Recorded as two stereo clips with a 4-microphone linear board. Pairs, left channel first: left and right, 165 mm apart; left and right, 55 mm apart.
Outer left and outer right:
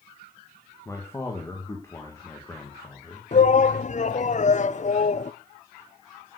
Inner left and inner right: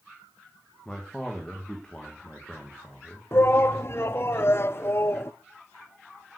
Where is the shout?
45° left (ahead or behind), 0.7 m.